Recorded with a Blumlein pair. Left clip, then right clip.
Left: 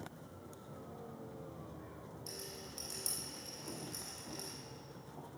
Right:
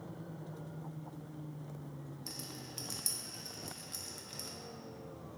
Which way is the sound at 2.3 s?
15° right.